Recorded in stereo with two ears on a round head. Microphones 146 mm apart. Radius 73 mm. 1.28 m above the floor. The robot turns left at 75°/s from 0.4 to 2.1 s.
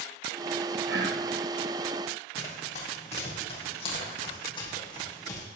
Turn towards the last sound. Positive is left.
turn(degrees=25)  # may be behind; listen again after turning